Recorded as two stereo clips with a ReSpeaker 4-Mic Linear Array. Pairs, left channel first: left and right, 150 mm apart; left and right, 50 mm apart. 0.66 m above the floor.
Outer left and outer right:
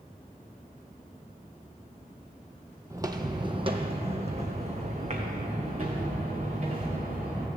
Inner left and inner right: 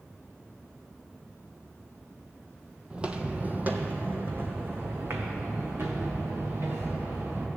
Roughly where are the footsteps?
Right.